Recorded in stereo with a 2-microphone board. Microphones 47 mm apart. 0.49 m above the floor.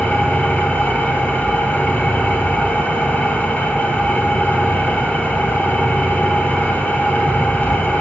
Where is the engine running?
45° left (ahead or behind), 3 m.